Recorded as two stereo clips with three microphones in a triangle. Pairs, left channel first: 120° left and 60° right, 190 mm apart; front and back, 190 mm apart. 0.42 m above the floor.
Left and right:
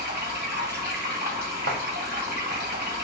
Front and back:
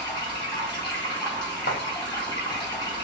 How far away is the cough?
I don't hear a cough.